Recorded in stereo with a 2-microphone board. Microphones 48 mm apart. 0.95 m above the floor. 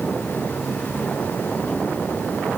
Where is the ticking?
No ticking in this recording.